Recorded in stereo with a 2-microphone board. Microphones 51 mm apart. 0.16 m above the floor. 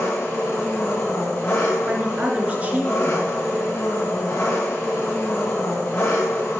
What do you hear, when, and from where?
0.0 s an engine running: 35° left (ahead or behind), 6.5 m
1.9 s a woman speaking: 30° right (ahead or behind), 2.5 m